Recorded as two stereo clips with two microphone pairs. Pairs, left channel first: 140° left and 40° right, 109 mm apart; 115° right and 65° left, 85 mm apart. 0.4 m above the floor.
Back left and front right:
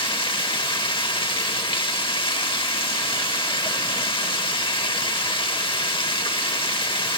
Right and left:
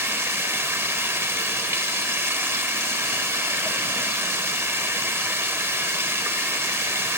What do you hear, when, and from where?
0.0 s running water: 120° left, 0.8 m